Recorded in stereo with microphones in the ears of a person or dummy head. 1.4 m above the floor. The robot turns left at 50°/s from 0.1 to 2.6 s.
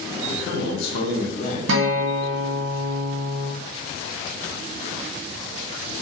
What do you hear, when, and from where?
0.3 s a man speaking: 105° left, 0.6 m; by 1.6 s 40° left, 0.6 m
1.7 s a guitar: 75° right, 0.6 m; by 3.5 s 120° right, 0.6 m